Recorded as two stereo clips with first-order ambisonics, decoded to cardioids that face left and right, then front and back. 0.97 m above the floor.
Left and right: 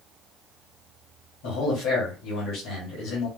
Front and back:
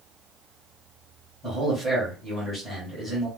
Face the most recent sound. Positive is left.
turn(degrees=80)